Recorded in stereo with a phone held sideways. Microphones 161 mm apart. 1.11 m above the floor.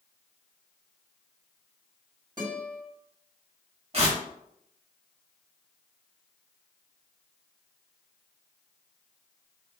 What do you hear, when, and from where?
2.4 s a guitar: 30° right (ahead or behind), 2.0 m
3.9 s tearing paper: 45° right (ahead or behind), 1.1 m